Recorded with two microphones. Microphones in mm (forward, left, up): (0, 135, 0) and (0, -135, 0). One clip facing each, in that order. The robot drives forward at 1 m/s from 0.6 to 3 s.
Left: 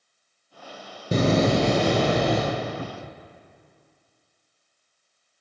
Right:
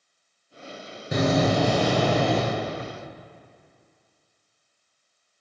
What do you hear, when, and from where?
1.1 s a door slam: 35° left (ahead or behind), 1.2 m; by 2.4 s 20° left (ahead or behind), 2.5 m
2.8 s a cupboard door: 40° left (ahead or behind), 0.6 m